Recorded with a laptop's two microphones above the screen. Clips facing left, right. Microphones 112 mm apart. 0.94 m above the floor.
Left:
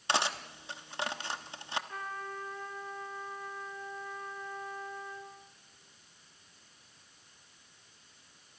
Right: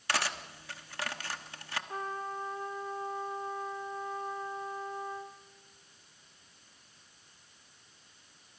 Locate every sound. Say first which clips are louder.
0.1 s cutlery clinking: left 2 dB; 20° left (ahead or behind), 0.9 m
1.9 s a trumpet: right 3 dB; 30° right (ahead or behind), 2.5 m